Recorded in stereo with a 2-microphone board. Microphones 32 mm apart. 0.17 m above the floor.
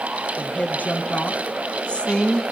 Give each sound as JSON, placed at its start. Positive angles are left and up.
{"t": 0.4, "sound": "a woman speaking", "side_deg": 60, "distance_m": 3.0}